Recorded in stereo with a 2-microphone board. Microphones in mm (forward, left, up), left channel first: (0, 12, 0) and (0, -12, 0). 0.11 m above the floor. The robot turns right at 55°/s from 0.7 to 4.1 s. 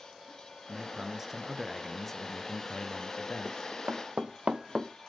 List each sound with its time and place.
0.7 s a man speaking: 55° right, 1.6 m; by 3.6 s 100° left, 1.6 m
3.5 s running footsteps: 55° right (ahead or behind), 1.2 m; by 4.9 s 40° right (ahead or behind), 0.9 m